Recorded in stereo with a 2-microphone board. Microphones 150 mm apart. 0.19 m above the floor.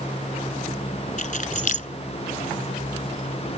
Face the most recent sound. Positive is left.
turn(degrees=60)  # may be behind; listen again after turning